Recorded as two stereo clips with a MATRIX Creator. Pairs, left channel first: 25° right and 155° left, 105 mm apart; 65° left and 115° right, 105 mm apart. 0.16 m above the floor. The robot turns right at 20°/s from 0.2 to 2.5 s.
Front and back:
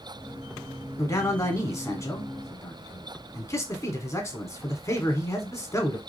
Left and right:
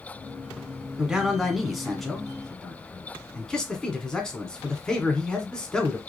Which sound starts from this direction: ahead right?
A man speaking, at 1.0 s.